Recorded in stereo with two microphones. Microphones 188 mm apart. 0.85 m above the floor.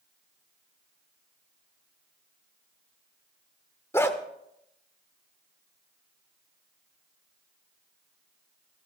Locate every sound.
3.9 s a dog barking: 15° left (ahead or behind), 1.0 m